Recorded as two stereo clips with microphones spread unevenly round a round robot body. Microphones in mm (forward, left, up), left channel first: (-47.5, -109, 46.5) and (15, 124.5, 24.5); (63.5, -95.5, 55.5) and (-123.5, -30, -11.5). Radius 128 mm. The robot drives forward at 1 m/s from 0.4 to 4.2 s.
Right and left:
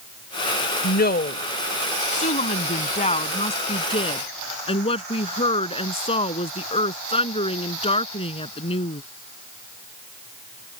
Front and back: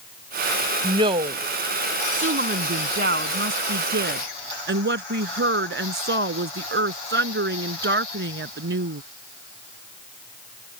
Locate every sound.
0.8 s a woman speaking: 150° right; by 9.0 s 170° right